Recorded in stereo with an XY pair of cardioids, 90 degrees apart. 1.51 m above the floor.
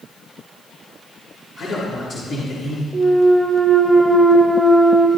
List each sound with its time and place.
1.6 s a man speaking: 65° left, 5 m
2.9 s a clunk: 10° right, 1.5 m